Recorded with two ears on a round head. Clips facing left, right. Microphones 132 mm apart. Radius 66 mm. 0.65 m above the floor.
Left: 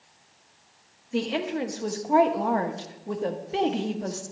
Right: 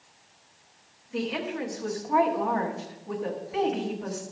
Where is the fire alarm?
No fire alarm in this recording.